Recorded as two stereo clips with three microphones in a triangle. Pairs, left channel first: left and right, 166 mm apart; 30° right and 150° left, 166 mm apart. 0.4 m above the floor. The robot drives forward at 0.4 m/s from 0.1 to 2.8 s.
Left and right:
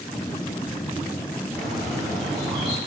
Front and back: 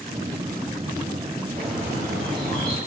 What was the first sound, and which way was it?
A bird, straight behind.